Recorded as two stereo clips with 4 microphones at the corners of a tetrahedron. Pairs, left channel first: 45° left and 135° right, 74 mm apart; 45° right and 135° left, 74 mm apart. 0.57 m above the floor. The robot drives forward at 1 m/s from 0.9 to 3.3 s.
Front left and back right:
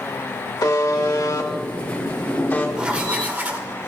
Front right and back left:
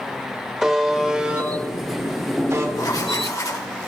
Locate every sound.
0.6 s a buzzer: 50° left, 2.5 m; by 2.7 s 105° left, 2 m
2.8 s writing: 60° right, 2.5 m; by 3.7 s 75° right, 2 m